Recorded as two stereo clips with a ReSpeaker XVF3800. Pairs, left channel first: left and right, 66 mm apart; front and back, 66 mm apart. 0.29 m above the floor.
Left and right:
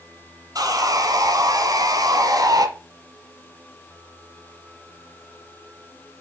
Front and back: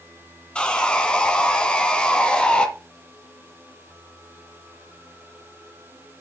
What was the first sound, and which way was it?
Sawing, 75° right.